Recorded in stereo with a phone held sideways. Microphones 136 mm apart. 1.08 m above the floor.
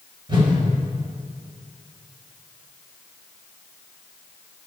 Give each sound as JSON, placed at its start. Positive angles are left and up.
{"t": 0.3, "sound": "a whoosh", "side_deg": -35, "distance_m": 4.5}